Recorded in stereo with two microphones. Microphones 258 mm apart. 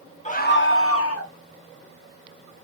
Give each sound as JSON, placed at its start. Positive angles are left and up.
{"t": 0.2, "sound": "a scream", "side_deg": 25, "distance_m": 0.9}